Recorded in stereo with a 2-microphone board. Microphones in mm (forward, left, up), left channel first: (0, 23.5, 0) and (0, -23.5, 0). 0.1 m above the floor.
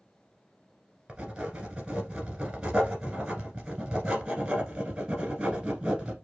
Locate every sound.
1.1 s writing: 20° right (ahead or behind), 1.5 m